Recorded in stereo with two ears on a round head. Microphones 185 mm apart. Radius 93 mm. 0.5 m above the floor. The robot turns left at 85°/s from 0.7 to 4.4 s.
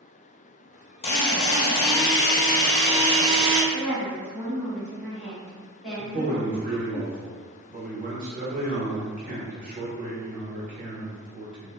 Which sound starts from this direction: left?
A woman speaking, at 3.7 s.